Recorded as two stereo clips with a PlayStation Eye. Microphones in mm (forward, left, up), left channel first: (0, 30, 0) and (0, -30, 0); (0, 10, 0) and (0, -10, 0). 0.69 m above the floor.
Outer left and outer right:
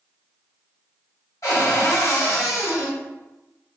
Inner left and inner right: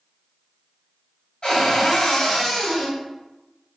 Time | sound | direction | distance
1.4 | a cupboard door | 55° left (ahead or behind) | 1.8 m